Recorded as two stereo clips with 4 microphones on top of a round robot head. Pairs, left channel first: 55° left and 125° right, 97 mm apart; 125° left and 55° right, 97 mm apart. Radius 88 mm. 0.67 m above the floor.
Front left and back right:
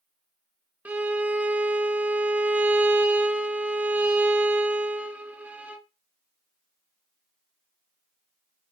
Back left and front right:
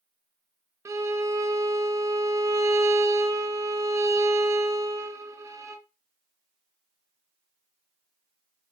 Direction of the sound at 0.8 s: 70° right.